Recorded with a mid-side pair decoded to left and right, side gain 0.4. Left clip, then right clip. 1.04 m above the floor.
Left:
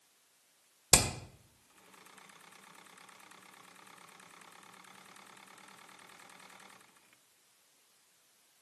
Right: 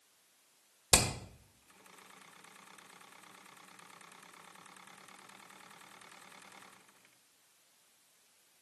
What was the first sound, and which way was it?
Hammering, 20° left.